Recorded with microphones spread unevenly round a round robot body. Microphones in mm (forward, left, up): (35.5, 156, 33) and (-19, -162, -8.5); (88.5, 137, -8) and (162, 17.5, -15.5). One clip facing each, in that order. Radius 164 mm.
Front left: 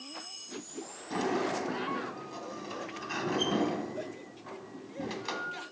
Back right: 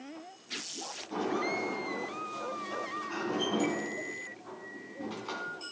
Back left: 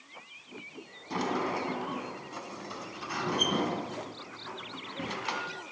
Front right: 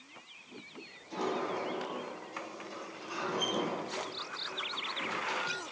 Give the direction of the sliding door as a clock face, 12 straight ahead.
8 o'clock.